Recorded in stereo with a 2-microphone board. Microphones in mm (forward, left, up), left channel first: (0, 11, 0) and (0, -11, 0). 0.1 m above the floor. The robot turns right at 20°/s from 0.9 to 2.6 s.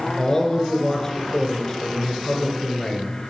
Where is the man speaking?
20° left (ahead or behind), 1.2 m; by 3.2 s 25° left (ahead or behind), 1.2 m.